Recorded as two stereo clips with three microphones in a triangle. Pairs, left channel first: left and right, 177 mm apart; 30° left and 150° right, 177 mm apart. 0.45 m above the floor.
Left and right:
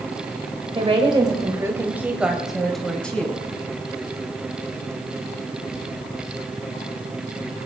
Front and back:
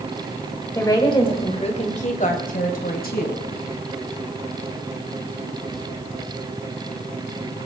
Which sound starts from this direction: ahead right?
A woman speaking, at 0.8 s.